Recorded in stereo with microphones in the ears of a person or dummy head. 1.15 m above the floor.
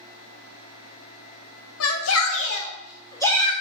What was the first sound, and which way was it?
A shout, 75° left (ahead or behind).